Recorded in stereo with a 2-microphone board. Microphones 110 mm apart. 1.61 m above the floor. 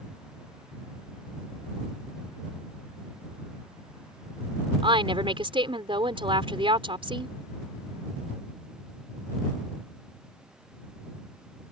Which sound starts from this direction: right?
A woman speaking, at 4.8 s.